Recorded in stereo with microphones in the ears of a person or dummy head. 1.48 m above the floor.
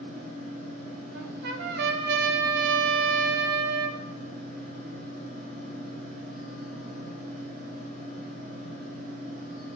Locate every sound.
0.0 s a fan: 50° right (ahead or behind), 2 m
1.1 s a trumpet: 65° right (ahead or behind), 0.7 m